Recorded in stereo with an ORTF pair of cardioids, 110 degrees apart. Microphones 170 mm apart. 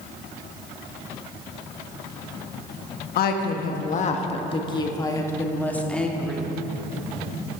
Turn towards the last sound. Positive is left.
turn(degrees=0)